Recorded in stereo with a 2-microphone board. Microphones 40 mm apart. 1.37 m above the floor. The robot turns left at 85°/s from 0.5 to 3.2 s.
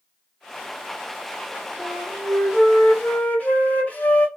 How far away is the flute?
About 2 m.